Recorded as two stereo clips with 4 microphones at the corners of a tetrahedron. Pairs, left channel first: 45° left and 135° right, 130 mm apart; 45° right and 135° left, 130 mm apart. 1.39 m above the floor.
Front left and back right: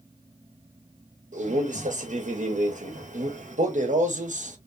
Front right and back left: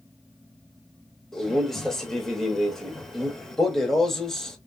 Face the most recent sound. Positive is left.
turn(degrees=-130)